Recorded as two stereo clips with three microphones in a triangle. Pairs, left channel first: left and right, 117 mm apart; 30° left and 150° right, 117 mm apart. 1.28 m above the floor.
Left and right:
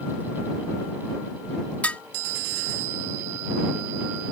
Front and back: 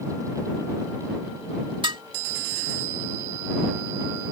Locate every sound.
1.8 s dishes clattering: 170° left